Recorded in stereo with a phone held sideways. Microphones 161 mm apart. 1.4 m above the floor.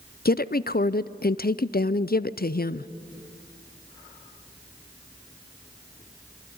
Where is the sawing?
No sawing in this recording.